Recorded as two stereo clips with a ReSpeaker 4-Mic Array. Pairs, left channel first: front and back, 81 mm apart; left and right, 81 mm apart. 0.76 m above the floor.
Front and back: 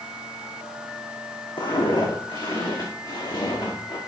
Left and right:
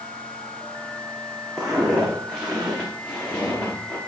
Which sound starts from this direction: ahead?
Footsteps, at 1.6 s.